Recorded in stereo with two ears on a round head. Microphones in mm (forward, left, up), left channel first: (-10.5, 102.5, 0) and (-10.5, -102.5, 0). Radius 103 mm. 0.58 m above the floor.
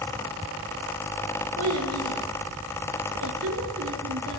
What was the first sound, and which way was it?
A child speaking, 80° right.